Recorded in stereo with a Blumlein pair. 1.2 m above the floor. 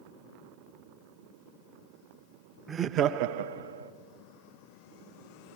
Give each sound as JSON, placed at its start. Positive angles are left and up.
{"t": 2.7, "sound": "laughter", "azimuth_deg": -15, "distance_m": 0.6}